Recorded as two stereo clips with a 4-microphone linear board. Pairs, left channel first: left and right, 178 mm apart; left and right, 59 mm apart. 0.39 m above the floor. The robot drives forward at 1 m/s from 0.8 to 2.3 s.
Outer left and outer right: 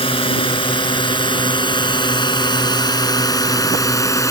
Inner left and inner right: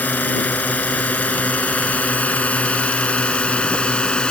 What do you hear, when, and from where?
0.0 s a drone: 30° left (ahead or behind); by 4.3 s 15° left (ahead or behind)